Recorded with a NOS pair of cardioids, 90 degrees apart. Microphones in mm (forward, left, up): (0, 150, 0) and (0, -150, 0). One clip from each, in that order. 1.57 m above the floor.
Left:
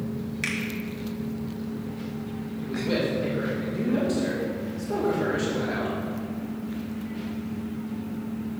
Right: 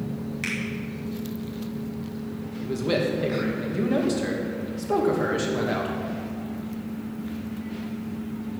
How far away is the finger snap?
About 2.5 m.